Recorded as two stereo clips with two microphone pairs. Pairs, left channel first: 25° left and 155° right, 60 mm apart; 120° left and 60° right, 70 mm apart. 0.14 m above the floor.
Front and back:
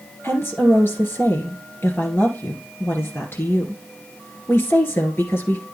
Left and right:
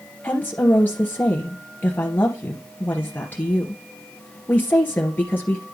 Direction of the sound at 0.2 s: 65° left.